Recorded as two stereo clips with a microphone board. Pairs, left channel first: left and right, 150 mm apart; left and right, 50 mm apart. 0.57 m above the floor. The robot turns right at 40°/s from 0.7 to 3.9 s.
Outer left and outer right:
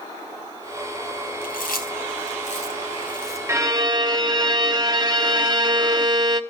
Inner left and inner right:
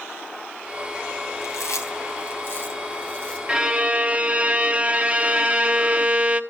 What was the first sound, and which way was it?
Chewing, 75° left (ahead or behind).